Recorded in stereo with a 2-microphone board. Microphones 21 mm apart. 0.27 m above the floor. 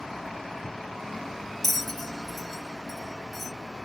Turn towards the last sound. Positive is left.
turn(degrees=5)  # may be behind; listen again after turning